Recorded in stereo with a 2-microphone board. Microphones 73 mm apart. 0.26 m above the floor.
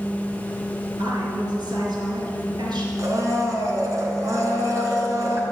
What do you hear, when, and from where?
1.0 s a woman speaking: 75° right (ahead or behind), 4.5 m
3.0 s a blender: 50° right (ahead or behind), 3.5 m